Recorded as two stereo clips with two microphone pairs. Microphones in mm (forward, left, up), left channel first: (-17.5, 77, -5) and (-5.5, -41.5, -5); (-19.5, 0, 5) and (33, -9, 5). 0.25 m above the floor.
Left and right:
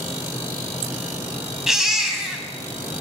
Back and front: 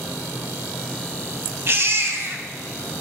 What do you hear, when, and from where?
1.7 s a baby crying: 5° left, 0.6 m